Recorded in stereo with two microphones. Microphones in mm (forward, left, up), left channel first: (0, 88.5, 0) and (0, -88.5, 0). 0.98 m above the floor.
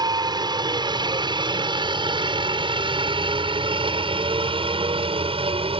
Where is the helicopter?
25° right (ahead or behind); by 5.8 s 30° right (ahead or behind).